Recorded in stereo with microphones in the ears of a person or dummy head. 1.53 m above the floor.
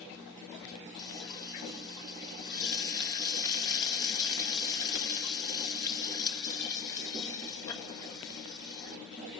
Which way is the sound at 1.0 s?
20° left (ahead or behind).